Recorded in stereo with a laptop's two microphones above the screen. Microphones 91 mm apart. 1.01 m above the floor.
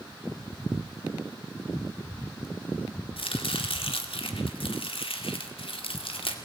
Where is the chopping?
85° left, 2 m.